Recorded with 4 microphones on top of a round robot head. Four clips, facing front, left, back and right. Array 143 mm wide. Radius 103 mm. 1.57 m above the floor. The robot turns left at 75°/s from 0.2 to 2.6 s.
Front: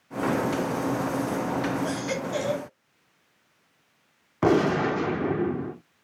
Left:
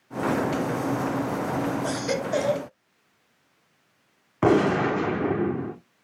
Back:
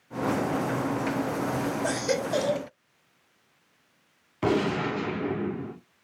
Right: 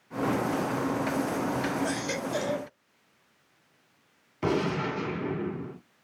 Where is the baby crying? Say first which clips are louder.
Left 4 dB, back 2 dB; 150° left, 3 m; by 2.7 s 95° left, 3 m.